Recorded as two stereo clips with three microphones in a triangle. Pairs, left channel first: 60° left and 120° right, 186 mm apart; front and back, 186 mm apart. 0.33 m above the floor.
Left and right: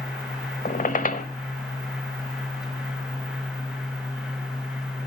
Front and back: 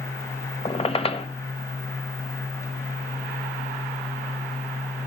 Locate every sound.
0.7 s a squeak: 45° left, 1.1 m